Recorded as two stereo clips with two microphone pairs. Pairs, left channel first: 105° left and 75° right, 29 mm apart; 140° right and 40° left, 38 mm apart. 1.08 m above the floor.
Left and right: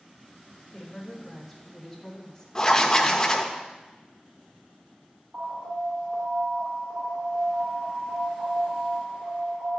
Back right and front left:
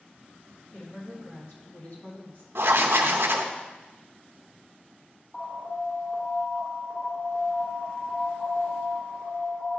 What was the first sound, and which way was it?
A woman speaking, 165° right.